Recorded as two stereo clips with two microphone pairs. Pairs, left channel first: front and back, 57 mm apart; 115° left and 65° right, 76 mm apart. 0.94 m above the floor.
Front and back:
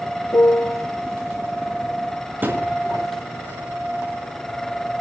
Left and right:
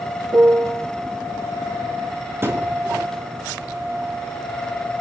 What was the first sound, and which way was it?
A piano, 15° right.